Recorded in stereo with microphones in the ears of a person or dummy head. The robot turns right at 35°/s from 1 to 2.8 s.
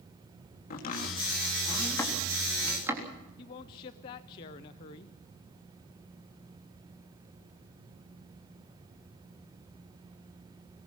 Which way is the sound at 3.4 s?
25° left (ahead or behind).